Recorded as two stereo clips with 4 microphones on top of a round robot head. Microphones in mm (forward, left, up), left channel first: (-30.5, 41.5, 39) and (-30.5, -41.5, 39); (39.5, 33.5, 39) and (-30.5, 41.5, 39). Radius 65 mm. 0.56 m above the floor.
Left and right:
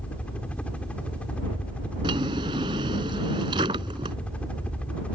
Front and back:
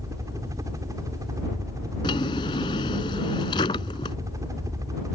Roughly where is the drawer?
Ahead right.